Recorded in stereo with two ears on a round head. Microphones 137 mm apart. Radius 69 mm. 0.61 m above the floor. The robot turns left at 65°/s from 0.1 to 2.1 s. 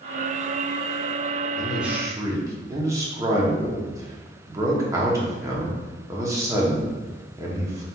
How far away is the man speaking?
About 0.8 m.